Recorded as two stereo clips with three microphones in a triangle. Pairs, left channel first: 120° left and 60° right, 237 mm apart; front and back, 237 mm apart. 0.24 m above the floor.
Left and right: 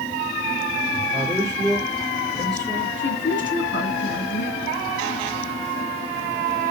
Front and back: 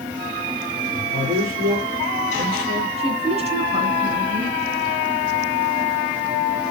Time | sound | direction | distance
0.9 | a man speaking | 135° right | 3.5 m
3.0 | a woman speaking | 120° left | 2 m